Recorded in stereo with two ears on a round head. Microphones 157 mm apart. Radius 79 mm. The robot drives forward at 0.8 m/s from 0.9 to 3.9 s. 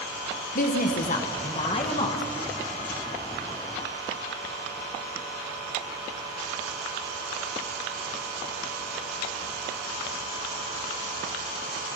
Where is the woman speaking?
50° left (ahead or behind), 1.5 m; by 2.2 s 30° left (ahead or behind), 2.5 m.